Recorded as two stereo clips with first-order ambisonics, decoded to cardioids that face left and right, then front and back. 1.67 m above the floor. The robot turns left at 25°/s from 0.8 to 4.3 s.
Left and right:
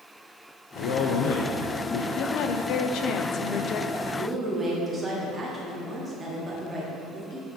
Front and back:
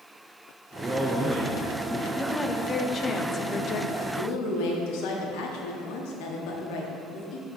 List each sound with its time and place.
0.8 s a man speaking: 110° left, 0.7 m; by 2.0 s 75° left, 0.7 m
2.1 s a woman speaking: 85° left, 0.5 m; by 3.9 s 40° left, 0.5 m
4.0 s a woman speaking: 10° right, 1.4 m; by 7.5 s 15° right, 1.4 m